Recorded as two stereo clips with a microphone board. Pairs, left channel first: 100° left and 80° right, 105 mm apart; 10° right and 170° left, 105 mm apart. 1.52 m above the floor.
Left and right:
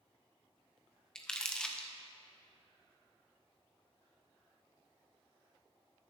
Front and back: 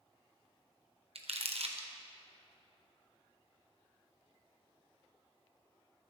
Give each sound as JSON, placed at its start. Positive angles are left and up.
{"t": 1.1, "sound": "crumpling", "azimuth_deg": -175, "distance_m": 1.0}